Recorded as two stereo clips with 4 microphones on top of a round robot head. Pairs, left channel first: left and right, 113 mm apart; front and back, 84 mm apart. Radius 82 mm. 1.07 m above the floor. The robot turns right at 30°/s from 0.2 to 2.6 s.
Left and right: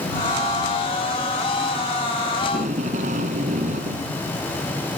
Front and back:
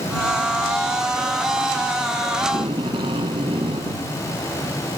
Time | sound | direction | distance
2.4 | tape being pulled | 130° right | ?